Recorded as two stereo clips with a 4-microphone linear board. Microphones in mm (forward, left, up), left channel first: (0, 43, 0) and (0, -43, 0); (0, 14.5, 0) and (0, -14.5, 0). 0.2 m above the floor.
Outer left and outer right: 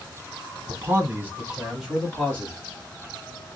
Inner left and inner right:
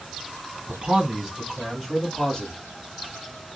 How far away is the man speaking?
About 1.2 m.